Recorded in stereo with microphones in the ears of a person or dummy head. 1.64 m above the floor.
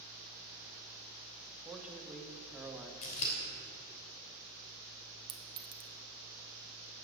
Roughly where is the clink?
Right.